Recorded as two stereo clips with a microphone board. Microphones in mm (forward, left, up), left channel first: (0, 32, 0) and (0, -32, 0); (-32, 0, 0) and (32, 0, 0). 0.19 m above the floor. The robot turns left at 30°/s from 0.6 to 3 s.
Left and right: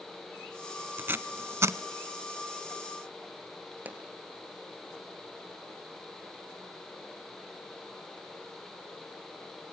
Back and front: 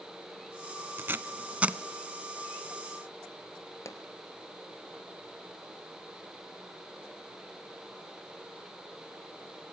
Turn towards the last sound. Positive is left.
turn(degrees=-150)